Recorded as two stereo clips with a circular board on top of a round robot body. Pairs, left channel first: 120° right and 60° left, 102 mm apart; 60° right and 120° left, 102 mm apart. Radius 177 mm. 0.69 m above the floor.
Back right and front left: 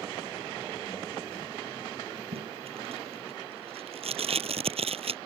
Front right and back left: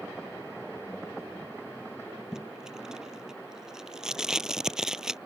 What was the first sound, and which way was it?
Tape being pulled, 35° left.